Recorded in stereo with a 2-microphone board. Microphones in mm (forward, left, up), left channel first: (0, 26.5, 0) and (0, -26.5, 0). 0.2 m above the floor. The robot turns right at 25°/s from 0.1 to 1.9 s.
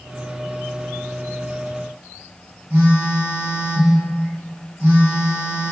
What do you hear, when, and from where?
2.7 s a phone buzzing: 25° right (ahead or behind), 1.8 m